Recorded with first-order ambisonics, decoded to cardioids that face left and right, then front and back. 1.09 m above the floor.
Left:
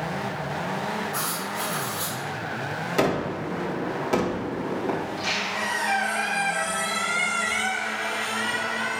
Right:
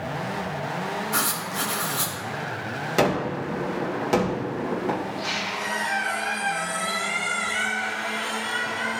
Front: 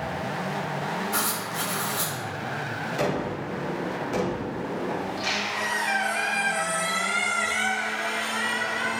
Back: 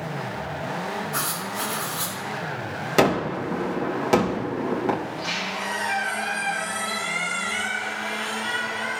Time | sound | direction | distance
1.1 | writing | 60° right | 2.0 m
3.0 | a gunshot | 165° right | 1.6 m
5.0 | a squeak | 25° left | 3.5 m